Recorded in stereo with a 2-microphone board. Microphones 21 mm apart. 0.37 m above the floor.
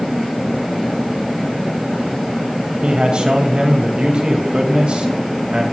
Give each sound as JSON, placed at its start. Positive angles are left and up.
{"t": 2.8, "sound": "a man speaking", "side_deg": -55, "distance_m": 2.0}